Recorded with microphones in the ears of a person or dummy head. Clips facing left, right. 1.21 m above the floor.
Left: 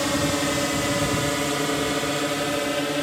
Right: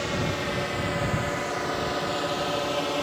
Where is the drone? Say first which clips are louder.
Left 6 dB; 60° left (ahead or behind); by 3.0 s 20° left (ahead or behind).